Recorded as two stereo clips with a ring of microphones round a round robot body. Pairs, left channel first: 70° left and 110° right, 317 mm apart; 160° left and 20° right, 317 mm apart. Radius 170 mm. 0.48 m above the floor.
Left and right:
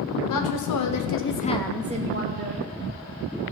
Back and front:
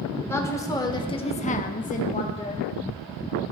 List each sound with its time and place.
0.3 s a woman speaking: 75° left, 1.7 m; by 2.6 s 130° right, 1.3 m